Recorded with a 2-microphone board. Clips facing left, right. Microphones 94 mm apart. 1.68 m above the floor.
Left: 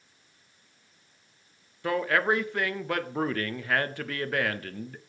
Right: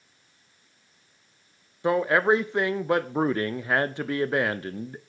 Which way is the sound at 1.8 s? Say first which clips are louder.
Right 4 dB; 20° right (ahead or behind).